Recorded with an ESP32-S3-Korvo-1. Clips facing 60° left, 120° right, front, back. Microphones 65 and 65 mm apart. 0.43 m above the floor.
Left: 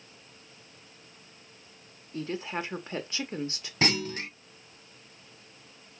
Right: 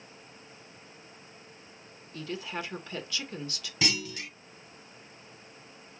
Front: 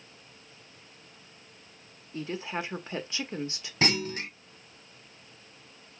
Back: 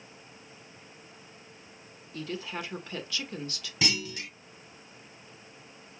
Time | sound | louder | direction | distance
2.1 | a woman speaking | left 3 dB, front 2 dB | 35° left | 1.1 m
3.8 | a clunk | left 4 dB, front 4 dB | 30° left | 0.5 m